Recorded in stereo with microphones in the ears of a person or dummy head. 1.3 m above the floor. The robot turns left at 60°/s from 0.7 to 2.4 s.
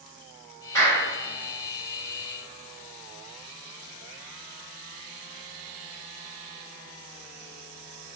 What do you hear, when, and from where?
0.8 s a clap: 15° left (ahead or behind), 2.0 m; by 1.0 s 30° left (ahead or behind), 2.0 m